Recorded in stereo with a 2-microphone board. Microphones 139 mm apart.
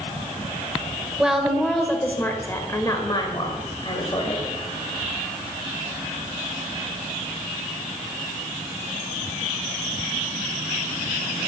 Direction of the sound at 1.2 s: 5° right (ahead or behind).